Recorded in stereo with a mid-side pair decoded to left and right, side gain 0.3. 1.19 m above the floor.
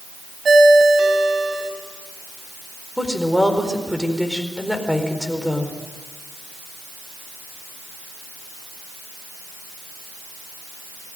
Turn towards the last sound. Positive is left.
turn(degrees=0)